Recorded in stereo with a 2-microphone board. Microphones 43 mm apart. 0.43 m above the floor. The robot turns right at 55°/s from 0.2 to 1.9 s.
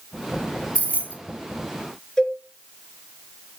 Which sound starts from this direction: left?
Keys jangling, at 0.8 s.